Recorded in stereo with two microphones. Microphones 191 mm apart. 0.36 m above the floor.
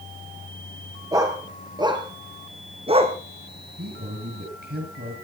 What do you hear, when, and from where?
1.1 s a dog barking: 20° right (ahead or behind), 2.5 m; by 3.2 s 35° right (ahead or behind), 1.3 m
3.8 s a man speaking: 60° right (ahead or behind), 7 m